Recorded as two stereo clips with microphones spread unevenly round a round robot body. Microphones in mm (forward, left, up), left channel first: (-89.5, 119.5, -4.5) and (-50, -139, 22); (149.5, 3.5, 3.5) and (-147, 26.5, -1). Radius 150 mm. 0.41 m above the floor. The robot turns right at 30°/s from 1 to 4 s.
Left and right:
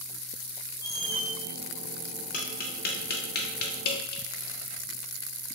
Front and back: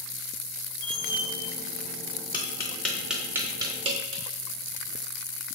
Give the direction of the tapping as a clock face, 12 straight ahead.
10 o'clock.